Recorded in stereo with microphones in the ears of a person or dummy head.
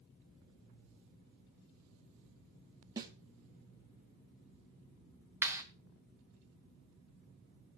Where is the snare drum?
15° right (ahead or behind), 1.3 m.